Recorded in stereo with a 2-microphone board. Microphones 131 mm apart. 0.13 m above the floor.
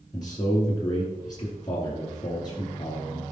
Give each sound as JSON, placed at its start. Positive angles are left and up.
{"t": 0.1, "sound": "a man speaking", "side_deg": 30, "distance_m": 2.5}